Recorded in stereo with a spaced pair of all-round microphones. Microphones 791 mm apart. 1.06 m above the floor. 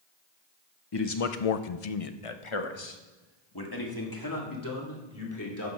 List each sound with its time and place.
0.9 s a man speaking: 35° left (ahead or behind), 0.7 m; by 5.7 s 20° left (ahead or behind), 3.5 m